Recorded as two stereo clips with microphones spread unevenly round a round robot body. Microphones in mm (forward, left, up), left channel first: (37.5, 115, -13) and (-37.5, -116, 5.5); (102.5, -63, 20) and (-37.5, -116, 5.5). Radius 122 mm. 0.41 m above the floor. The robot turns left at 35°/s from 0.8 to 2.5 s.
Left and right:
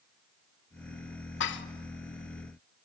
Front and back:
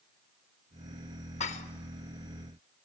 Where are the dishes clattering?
60° left, 0.9 m; by 1.6 s 55° left, 0.9 m.